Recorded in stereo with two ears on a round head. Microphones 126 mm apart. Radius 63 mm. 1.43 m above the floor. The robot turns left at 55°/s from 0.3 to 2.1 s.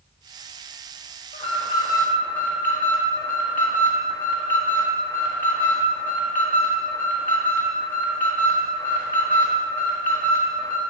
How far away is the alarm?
About 1.5 m.